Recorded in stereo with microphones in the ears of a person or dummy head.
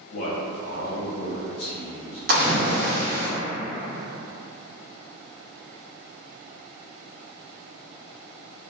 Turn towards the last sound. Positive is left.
turn(degrees=-50)  # may be behind; listen again after turning